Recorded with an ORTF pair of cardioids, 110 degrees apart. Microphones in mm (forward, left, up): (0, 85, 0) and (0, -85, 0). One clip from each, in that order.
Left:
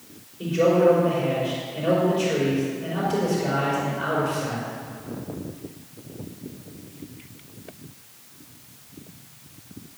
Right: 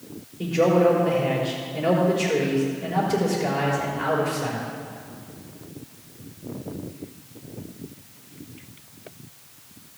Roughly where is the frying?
No frying in this recording.